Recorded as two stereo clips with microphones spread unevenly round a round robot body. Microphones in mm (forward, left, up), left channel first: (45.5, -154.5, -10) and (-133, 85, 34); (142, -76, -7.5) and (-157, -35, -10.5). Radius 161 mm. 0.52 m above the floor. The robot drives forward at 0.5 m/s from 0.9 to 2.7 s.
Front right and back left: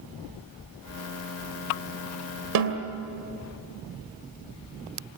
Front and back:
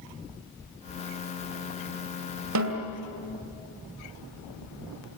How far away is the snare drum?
About 2.5 m.